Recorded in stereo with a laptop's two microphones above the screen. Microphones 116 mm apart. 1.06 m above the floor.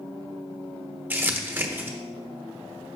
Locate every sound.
1.1 s crumpling: 15° right (ahead or behind), 1.2 m